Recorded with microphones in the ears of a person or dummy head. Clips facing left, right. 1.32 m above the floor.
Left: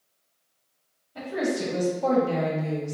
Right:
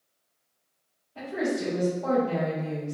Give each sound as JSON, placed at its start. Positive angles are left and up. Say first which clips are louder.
{"t": 1.1, "sound": "a woman speaking", "louder": "left 1 dB", "side_deg": 60, "distance_m": 1.6}